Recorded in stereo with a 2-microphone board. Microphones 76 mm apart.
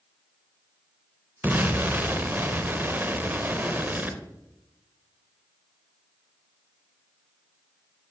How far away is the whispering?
I don't hear whispering.